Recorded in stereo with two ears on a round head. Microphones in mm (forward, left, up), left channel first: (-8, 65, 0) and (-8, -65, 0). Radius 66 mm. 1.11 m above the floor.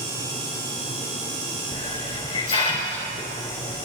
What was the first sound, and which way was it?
A hiss, 35° left (ahead or behind).